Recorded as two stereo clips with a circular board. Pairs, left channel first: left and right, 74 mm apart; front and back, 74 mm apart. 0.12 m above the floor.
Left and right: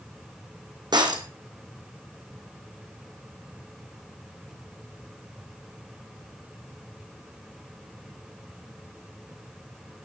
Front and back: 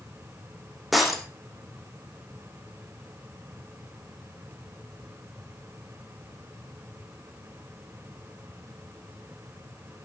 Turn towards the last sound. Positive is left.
turn(degrees=-90)